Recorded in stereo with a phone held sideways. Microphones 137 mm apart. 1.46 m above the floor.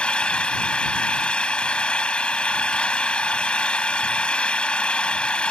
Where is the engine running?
10° left (ahead or behind).